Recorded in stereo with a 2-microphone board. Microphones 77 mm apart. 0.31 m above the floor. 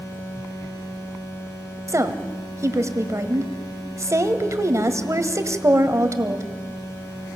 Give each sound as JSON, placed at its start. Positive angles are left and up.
{"t": 1.9, "sound": "a woman speaking", "side_deg": -40, "distance_m": 1.5}